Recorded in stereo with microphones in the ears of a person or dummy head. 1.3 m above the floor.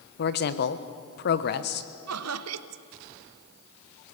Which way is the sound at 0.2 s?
50° left (ahead or behind).